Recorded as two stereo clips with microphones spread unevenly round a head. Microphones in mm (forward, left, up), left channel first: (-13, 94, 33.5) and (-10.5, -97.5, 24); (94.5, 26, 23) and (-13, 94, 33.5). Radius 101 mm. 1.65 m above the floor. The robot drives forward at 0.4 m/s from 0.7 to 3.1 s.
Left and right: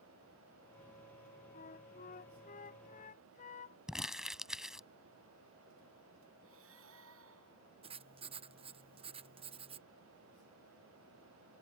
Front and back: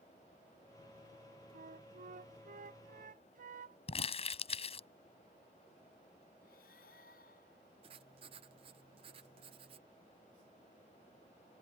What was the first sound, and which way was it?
A flute, 140° left.